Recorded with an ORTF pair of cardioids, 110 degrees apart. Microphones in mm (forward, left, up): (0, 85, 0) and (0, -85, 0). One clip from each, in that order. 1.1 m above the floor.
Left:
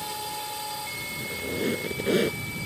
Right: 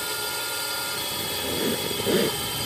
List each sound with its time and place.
0.0 s a drone: 40° right; by 2.7 s 60° right
1.2 s a squeak: 5° right